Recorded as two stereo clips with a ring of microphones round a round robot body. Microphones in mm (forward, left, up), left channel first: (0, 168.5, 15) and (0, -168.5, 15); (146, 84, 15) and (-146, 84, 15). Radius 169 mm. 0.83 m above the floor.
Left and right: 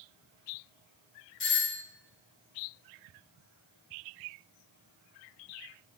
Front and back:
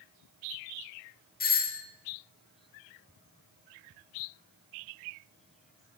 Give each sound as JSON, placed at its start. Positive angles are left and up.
{"t": 1.4, "sound": "a doorbell", "azimuth_deg": 50, "distance_m": 1.0}